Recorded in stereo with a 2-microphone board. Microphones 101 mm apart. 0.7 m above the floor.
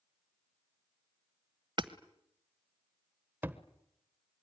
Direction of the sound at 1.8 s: 50° right (ahead or behind).